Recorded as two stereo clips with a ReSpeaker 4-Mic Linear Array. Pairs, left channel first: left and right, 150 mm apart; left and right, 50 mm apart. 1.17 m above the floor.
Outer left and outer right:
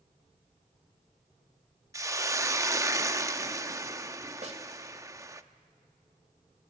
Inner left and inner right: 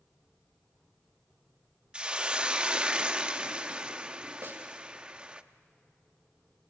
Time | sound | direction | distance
1.9 | a hiss | 20° right (ahead or behind) | 0.7 m
4.4 | a snare drum | 50° right (ahead or behind) | 2 m